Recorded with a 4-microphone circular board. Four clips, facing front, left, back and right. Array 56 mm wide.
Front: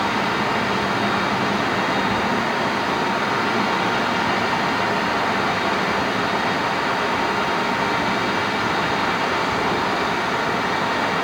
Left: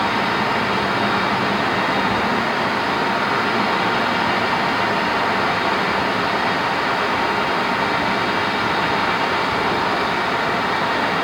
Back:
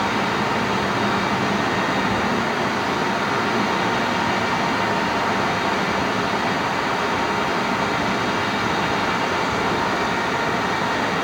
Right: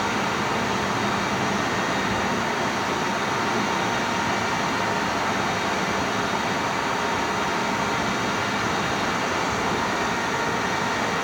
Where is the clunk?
I don't hear a clunk.